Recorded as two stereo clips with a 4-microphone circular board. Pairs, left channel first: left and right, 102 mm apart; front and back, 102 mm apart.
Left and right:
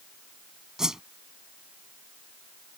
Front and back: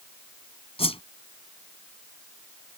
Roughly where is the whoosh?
Ahead.